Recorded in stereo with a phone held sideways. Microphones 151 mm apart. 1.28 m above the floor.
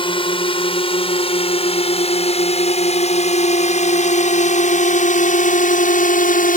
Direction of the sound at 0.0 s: 35° left (ahead or behind).